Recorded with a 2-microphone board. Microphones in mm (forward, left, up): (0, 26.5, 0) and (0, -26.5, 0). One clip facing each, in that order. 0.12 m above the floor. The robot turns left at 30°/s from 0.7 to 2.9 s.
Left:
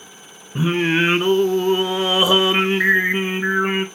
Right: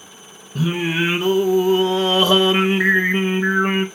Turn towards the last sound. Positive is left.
turn(degrees=0)  # may be behind; listen again after turning